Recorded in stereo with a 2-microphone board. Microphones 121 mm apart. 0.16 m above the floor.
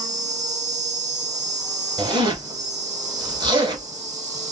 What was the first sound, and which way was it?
An insect, 75° right (ahead or behind).